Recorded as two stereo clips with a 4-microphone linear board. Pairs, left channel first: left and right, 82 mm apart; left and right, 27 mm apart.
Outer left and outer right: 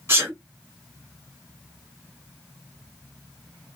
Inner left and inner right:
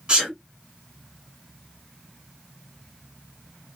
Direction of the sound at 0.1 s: 35° right (ahead or behind).